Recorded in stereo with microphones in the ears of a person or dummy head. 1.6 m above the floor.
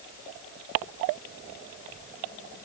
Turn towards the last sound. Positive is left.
No sound to turn to.